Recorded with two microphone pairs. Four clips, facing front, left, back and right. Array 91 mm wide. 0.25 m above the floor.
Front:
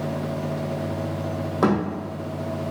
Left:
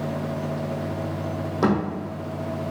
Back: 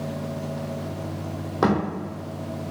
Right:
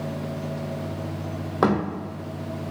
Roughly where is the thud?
Right.